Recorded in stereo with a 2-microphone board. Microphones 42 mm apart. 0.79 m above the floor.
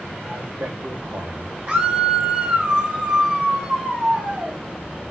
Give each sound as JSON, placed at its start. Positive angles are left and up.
{"t": 0.2, "sound": "a man speaking", "side_deg": -65, "distance_m": 3.5}
{"t": 1.7, "sound": "a scream", "side_deg": -30, "distance_m": 5.5}